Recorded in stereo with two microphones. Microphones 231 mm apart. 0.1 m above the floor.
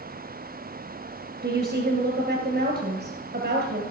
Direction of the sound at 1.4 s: 45° right (ahead or behind).